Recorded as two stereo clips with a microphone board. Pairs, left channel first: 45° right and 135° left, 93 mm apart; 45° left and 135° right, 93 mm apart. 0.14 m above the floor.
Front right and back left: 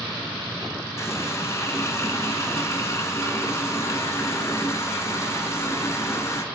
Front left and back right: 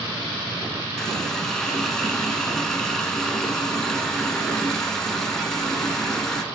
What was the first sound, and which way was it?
A running tap, 35° right.